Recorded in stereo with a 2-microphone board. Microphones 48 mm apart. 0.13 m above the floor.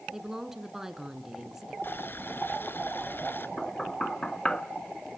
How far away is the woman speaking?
About 1.8 m.